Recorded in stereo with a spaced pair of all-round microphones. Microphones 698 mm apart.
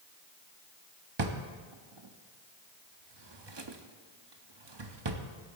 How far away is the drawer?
About 0.9 m.